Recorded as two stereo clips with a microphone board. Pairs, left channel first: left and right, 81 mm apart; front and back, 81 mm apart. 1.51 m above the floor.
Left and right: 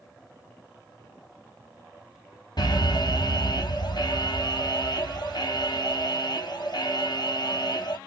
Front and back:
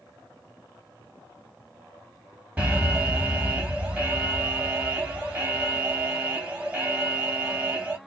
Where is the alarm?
110° left, 1.7 m.